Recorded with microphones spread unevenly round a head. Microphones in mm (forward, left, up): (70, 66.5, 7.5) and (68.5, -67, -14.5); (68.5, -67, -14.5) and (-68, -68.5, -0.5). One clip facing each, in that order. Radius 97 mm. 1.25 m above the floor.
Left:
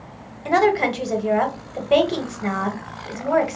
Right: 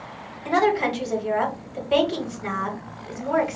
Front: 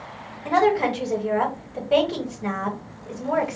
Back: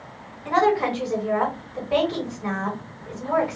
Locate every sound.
0.5 s a woman speaking: 60° left, 1.1 m